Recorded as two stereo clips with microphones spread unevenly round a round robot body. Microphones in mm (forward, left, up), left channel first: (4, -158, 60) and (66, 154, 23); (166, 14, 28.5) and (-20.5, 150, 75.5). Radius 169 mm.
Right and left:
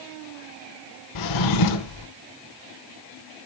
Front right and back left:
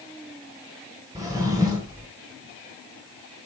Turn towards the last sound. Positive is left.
turn(degrees=-135)